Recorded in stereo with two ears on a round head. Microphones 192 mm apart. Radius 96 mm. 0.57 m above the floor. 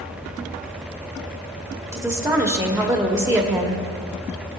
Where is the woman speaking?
15° right (ahead or behind), 1.2 m.